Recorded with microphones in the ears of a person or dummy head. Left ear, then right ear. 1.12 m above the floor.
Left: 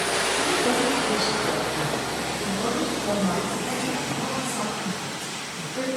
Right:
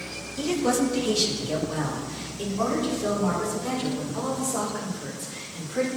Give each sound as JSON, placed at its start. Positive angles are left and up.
{"t": 0.4, "sound": "a woman speaking", "side_deg": -80, "distance_m": 0.9}